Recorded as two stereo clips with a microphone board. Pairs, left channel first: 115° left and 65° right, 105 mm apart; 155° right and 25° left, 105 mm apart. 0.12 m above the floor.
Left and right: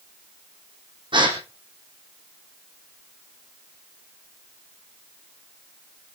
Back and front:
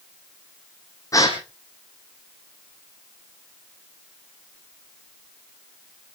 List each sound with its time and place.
1.1 s a gasp: 100° right, 3 m